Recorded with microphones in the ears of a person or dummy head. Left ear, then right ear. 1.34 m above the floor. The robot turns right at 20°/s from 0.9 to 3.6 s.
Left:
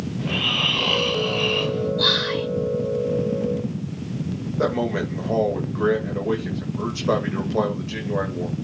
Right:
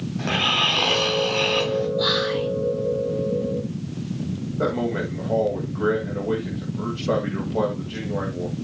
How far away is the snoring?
About 3 m.